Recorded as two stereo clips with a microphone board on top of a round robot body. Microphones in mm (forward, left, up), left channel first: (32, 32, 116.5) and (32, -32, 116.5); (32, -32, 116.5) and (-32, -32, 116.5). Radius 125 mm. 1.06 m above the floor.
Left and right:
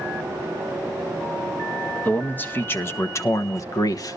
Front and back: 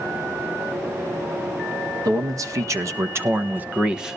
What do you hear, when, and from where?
2.0 s a man speaking: 155° left, 1.6 m; by 4.2 s 95° left, 1.0 m